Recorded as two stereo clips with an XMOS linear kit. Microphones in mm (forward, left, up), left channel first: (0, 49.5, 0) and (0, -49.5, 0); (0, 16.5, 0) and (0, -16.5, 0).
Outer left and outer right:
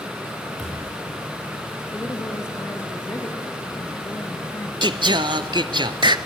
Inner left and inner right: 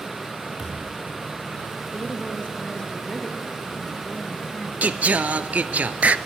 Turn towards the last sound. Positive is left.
turn(degrees=-55)  # may be behind; listen again after turning